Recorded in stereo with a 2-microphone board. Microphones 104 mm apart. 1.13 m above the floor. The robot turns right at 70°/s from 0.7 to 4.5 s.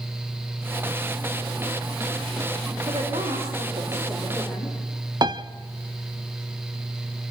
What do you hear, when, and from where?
2.9 s a woman speaking: 125° right, 3.5 m; by 4.8 s 10° right, 3.5 m
5.2 s a piano: 40° right (ahead or behind), 0.7 m